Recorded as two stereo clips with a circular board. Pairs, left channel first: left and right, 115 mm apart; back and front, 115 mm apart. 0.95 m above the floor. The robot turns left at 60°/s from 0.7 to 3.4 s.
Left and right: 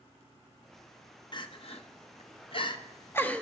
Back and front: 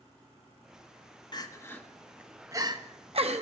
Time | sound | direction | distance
1.3 | crying | 135° left | 1.0 m